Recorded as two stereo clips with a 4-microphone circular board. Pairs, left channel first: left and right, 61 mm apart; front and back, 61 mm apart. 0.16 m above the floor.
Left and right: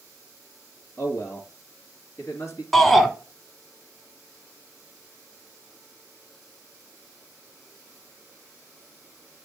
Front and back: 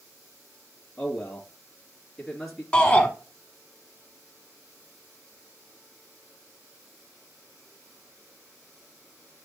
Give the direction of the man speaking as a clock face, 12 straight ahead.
9 o'clock.